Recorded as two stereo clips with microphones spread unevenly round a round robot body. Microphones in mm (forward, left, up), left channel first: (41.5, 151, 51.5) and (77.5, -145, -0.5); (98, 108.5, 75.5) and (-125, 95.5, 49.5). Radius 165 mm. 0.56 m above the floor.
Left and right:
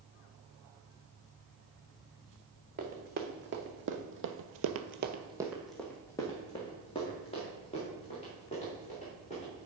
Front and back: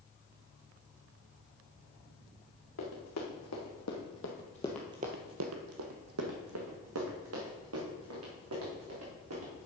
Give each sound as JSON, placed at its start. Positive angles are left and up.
{"t": 2.8, "sound": "running footsteps", "azimuth_deg": -20, "distance_m": 2.5}